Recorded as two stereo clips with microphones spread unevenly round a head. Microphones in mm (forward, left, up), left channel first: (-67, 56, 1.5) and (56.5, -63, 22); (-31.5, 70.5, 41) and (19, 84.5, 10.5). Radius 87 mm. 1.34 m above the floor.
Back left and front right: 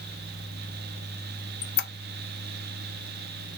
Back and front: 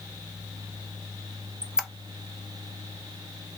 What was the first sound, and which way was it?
A squeak, 115° left.